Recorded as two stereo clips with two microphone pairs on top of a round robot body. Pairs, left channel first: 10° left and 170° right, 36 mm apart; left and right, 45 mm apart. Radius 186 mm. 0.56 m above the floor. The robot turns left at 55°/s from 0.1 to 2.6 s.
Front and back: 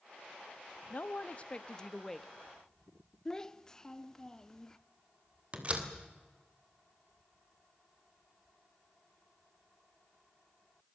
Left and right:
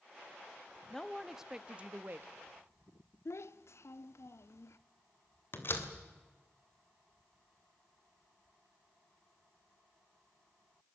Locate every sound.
0.9 s a man speaking: 10° left, 1.1 m; by 2.3 s 70° right, 1.1 m
3.2 s a child speaking: 70° left, 1.0 m
5.5 s a door slam: 130° left, 2.5 m